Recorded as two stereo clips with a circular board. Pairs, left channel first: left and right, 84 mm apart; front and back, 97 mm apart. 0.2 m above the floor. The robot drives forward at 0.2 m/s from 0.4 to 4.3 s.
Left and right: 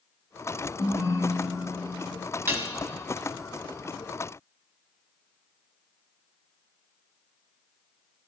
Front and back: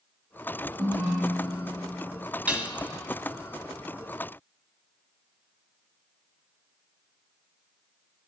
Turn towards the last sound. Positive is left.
turn(degrees=-145)